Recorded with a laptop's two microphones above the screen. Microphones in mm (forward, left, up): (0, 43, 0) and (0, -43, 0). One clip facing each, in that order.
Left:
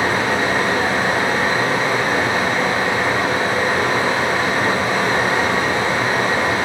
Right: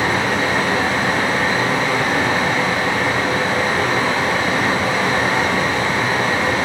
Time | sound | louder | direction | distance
0.0 | running water | even | 40° left (ahead or behind) | 1.4 m